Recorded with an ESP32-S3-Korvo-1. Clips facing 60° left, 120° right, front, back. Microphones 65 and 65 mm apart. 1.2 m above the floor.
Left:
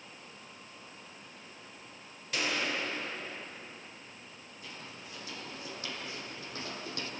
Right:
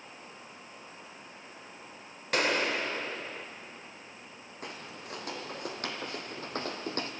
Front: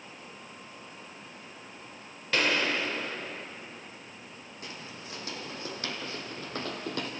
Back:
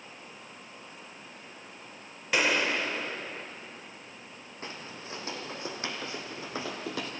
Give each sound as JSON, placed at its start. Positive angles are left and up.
{"t": 2.3, "sound": "a gunshot", "azimuth_deg": -105, "distance_m": 1.6}
{"t": 4.6, "sound": "footsteps", "azimuth_deg": -125, "distance_m": 2.5}